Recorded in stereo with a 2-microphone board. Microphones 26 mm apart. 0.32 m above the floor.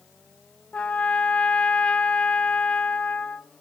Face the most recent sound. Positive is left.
turn(degrees=60)  # may be behind; listen again after turning